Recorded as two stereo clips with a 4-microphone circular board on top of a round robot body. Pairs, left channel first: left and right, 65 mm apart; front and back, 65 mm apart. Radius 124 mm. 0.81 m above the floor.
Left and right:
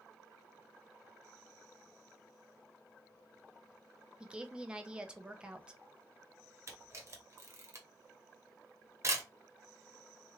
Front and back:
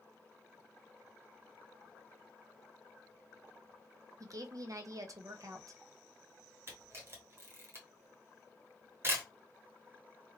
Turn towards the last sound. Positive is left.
turn(degrees=-130)